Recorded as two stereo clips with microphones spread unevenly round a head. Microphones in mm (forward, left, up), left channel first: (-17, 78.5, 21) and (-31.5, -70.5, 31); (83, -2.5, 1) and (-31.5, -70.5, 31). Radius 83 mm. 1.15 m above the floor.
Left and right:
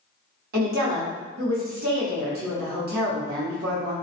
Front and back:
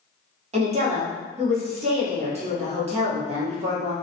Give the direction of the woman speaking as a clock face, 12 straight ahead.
4 o'clock.